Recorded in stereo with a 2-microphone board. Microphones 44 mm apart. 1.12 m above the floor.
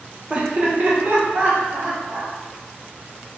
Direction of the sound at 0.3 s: 25° right (ahead or behind).